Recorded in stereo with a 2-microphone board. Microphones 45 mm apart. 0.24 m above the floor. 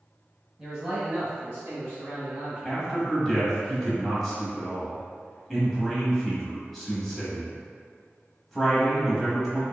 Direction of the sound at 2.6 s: 10° left (ahead or behind).